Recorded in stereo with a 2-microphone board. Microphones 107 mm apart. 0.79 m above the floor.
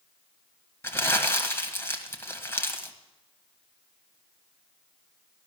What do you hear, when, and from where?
0.8 s crumpling: 25° left (ahead or behind), 1.7 m